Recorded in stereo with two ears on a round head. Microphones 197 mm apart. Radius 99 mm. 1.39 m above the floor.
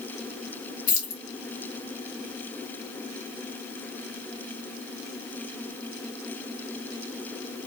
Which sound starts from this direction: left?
Keys jangling, at 0.9 s.